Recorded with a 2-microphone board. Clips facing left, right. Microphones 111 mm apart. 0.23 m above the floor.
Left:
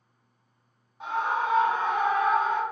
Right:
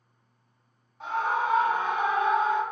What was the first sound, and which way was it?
A scream, 15° left (ahead or behind).